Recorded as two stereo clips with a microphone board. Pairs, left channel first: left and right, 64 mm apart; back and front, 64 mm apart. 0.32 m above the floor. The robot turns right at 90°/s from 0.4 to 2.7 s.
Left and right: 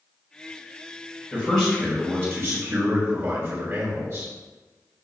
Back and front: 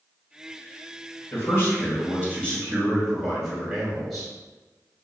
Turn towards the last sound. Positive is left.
turn(degrees=-90)